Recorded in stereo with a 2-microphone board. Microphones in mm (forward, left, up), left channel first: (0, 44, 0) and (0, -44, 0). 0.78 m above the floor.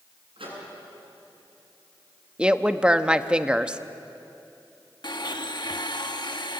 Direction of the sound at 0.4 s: 80° right.